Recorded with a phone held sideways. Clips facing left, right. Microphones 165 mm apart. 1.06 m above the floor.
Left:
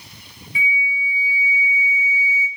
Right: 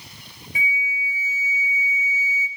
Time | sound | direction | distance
0.6 | a flute | 40° right (ahead or behind) | 1.1 m